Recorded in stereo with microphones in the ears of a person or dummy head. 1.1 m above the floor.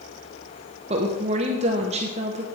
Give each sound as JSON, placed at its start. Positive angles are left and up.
{"t": 0.9, "sound": "a woman speaking", "side_deg": -30, "distance_m": 0.8}